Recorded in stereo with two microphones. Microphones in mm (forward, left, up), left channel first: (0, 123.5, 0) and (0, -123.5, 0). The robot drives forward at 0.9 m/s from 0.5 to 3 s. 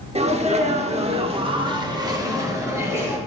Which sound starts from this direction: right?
A sneeze, at 0.1 s.